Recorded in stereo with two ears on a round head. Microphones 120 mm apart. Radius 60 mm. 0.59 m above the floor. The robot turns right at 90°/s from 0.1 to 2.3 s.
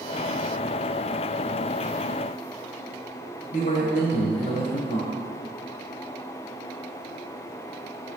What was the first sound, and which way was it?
A man speaking, 60° left (ahead or behind).